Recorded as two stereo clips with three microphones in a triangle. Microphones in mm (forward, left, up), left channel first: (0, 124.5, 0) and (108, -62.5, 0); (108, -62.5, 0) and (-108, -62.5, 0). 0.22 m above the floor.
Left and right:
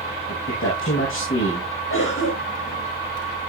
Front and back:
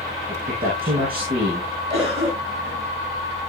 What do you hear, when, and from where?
0.3 s a man speaking: 135° left, 8.5 m
1.9 s a cough: 120° left, 8.5 m